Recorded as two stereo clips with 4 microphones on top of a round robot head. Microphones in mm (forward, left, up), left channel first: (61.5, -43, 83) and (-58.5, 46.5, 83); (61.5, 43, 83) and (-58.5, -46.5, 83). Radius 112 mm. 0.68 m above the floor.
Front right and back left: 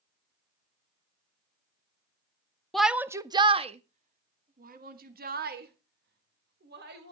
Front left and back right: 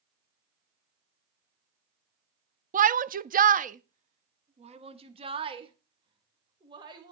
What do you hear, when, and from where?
2.7 s a shout: 125° right, 0.8 m; by 7.1 s 155° left, 3 m